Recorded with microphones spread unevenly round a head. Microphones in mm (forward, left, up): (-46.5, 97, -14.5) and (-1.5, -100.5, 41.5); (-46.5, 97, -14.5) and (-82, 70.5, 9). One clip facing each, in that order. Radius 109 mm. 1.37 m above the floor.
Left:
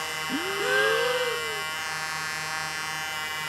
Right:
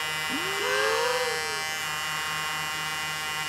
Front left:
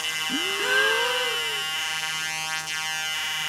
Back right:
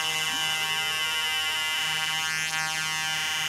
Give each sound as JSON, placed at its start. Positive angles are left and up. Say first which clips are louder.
{"t": 0.3, "sound": "a gasp", "louder": "left 3 dB, front left 4 dB", "azimuth_deg": 30}